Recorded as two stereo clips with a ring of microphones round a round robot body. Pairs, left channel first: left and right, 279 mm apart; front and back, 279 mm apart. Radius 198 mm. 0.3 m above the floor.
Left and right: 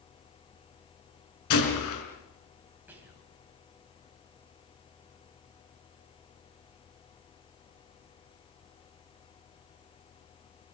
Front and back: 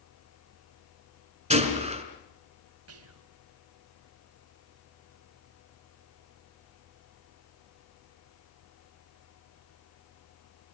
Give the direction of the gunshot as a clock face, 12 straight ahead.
8 o'clock.